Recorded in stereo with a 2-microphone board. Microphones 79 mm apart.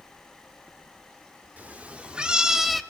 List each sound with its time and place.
1.6 s a cat meowing: 20° right (ahead or behind), 1.7 m; by 2.8 s centre (ahead or behind), 0.8 m